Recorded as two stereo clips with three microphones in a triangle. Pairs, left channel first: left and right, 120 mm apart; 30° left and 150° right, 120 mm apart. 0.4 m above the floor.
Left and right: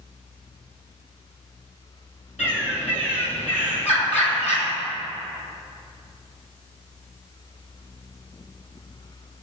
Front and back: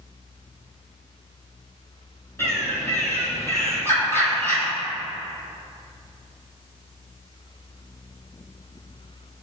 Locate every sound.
2.4 s a bird: 100° left, 3 m